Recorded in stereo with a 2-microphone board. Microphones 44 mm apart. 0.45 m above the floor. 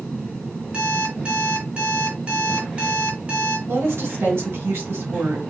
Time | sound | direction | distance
0.7 | an alarm clock | 30° right (ahead or behind) | 2 m
3.7 | a woman speaking | 70° right (ahead or behind) | 3.5 m